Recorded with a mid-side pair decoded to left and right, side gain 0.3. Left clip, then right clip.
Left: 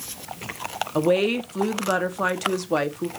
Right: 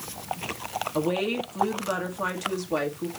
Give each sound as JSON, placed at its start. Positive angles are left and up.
{"t": 0.9, "sound": "a woman speaking", "azimuth_deg": 60, "distance_m": 0.9}